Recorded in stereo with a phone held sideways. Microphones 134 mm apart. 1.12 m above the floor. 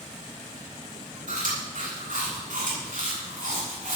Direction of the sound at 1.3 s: 75° right (ahead or behind).